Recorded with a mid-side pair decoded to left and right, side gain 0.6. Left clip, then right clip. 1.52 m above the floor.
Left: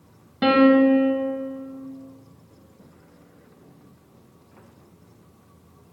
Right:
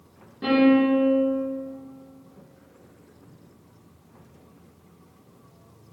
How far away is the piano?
About 1.4 m.